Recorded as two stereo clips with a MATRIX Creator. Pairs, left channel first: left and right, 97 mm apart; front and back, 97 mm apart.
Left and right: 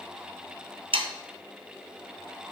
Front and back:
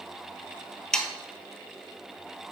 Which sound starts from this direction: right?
Sawing, at 0.9 s.